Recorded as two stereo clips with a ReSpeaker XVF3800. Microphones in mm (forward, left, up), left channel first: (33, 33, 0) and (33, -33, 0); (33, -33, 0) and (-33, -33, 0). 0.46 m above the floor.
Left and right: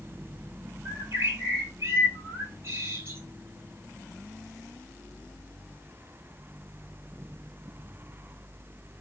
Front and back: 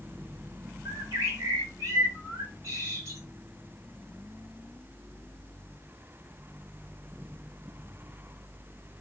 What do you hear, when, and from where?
0.8 s a bird: 135° right, 2 m